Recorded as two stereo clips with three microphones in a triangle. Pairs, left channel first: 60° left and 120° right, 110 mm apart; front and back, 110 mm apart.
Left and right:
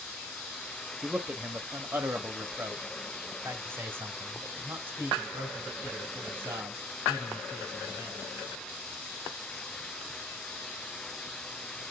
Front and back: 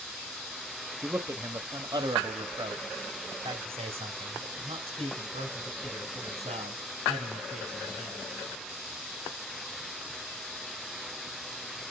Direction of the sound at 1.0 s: 170° right.